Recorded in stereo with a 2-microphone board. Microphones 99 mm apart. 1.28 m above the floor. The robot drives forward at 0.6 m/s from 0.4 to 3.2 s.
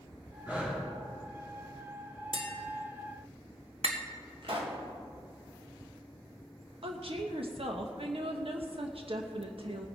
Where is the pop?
60° right (ahead or behind), 2.0 m.